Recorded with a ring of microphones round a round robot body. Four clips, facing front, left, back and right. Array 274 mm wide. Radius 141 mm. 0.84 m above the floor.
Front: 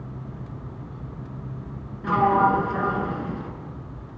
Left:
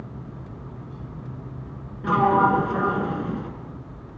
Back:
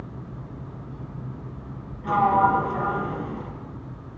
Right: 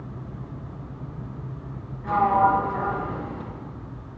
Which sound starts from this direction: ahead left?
A sliding door, at 2.0 s.